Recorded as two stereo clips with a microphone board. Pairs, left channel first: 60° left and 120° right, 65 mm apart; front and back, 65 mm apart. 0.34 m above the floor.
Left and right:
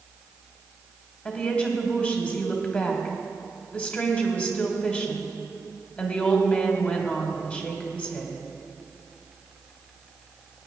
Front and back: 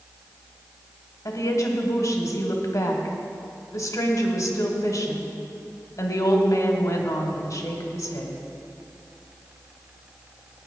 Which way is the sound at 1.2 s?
5° right.